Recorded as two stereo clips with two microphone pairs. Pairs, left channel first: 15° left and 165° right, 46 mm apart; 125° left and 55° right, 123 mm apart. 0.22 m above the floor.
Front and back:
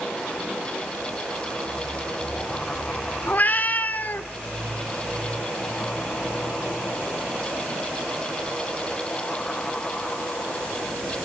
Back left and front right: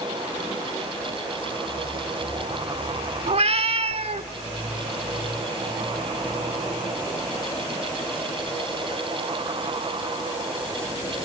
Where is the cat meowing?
30° right, 0.9 m.